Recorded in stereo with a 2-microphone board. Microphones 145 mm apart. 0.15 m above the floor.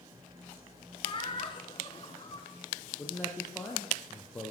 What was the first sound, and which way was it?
Laughter, 35° left (ahead or behind).